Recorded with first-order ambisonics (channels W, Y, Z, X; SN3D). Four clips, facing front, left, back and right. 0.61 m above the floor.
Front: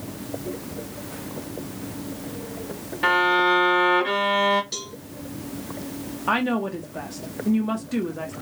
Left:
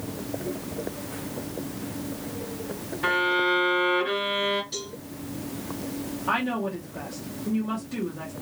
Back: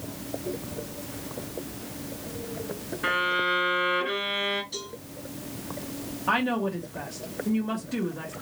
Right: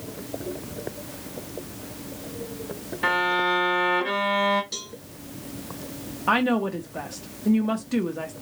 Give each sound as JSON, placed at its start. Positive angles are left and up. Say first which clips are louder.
{"t": 3.0, "sound": "a violin", "louder": "right 1 dB, front 6 dB", "azimuth_deg": -20, "distance_m": 1.9}
{"t": 4.7, "sound": "a cowbell", "louder": "even, front 3 dB", "azimuth_deg": -25, "distance_m": 2.0}
{"t": 6.3, "sound": "a woman speaking", "louder": "right 5 dB, front 2 dB", "azimuth_deg": -60, "distance_m": 0.7}